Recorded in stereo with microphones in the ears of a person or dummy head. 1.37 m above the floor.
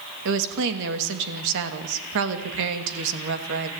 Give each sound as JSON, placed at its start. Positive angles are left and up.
{"t": 0.2, "sound": "a woman speaking", "side_deg": -70, "distance_m": 2.5}